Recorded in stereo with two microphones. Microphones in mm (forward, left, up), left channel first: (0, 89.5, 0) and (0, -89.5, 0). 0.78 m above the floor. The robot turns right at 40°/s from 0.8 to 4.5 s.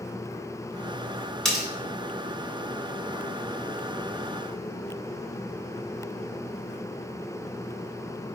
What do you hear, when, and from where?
1.4 s cutlery clinking: 5° left (ahead or behind), 1.0 m; by 1.6 s 5° right (ahead or behind), 1.0 m